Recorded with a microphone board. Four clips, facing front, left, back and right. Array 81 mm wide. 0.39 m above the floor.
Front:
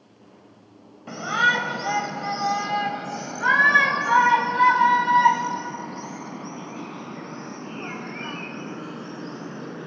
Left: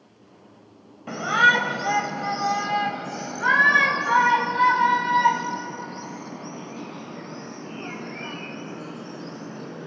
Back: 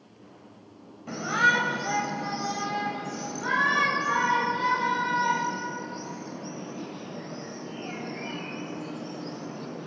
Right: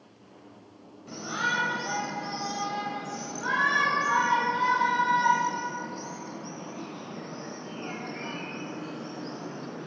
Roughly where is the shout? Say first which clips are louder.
Left 11 dB, front 2 dB; left.